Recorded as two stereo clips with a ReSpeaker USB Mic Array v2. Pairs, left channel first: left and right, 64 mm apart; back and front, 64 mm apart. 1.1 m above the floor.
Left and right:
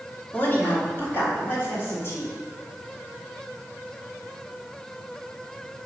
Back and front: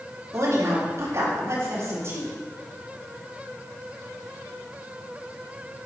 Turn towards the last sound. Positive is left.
turn(degrees=45)